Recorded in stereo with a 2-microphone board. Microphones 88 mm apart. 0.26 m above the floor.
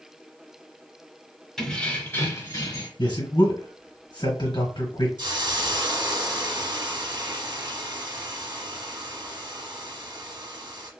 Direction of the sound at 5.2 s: 55° right (ahead or behind).